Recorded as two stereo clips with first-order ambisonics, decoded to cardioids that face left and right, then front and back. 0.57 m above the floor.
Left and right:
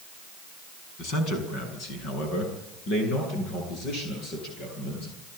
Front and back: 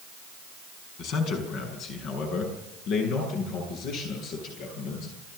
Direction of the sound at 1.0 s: 45° left.